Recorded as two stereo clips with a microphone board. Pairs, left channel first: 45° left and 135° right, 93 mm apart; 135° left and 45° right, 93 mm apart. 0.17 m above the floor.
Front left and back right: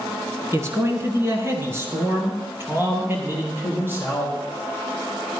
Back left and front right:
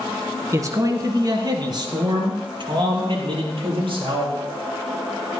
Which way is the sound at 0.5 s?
90° right.